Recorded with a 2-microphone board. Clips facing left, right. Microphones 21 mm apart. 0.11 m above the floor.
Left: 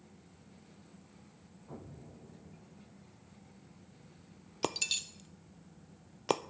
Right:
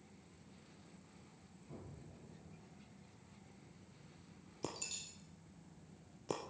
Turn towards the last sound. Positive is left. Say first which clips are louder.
# left 12 dB
turn(degrees=55)  # may be behind; listen again after turning